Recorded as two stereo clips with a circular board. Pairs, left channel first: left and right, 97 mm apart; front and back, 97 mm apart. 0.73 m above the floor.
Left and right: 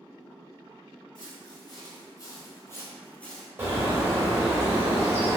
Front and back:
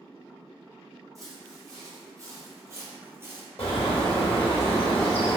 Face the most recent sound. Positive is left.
turn(degrees=-25)